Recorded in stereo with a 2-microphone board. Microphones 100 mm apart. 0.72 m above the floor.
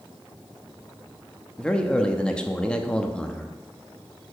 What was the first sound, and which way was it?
A man speaking, 10° left (ahead or behind).